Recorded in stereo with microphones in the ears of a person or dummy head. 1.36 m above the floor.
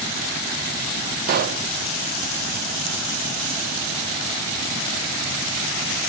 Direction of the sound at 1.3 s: 50° right (ahead or behind).